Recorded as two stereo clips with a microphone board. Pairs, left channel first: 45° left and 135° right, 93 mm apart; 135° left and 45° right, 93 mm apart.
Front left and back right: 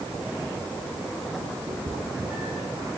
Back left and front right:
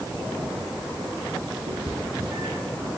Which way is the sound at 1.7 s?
60° right.